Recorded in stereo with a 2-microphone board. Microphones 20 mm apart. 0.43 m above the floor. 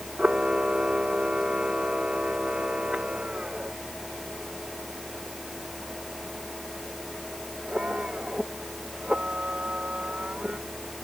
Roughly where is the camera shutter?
Right.